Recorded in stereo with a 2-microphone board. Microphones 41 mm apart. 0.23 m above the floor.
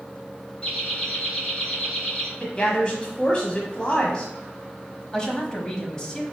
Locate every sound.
0.6 s laughter: 25° left (ahead or behind), 1.5 m
2.4 s a woman speaking: 25° left (ahead or behind), 1.2 m
5.1 s a woman speaking: 20° left (ahead or behind), 1.0 m